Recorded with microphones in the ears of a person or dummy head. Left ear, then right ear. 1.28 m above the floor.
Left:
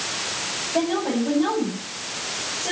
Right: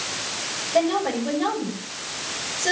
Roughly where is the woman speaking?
Right.